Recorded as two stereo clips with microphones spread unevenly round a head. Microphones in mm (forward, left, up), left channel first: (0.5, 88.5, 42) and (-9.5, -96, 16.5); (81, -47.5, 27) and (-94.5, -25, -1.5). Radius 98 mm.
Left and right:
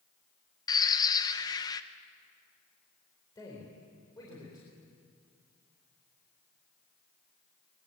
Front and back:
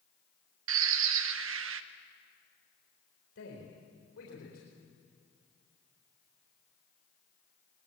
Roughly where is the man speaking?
Ahead.